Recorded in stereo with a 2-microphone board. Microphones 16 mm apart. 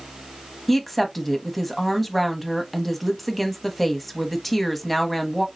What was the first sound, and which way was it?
A woman speaking, 5° left (ahead or behind).